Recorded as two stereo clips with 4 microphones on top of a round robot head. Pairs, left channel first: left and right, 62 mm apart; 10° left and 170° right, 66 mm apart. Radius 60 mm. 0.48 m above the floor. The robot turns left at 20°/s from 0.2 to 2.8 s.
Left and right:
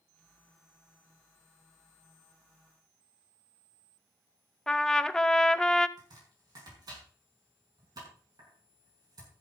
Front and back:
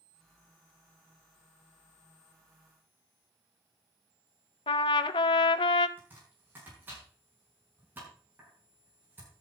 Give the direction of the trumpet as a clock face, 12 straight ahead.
12 o'clock.